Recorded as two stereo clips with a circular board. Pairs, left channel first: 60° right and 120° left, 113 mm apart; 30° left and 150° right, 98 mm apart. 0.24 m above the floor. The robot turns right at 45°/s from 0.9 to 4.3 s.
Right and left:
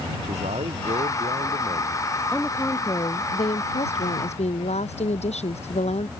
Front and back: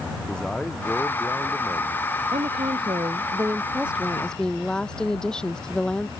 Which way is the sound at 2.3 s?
140° right.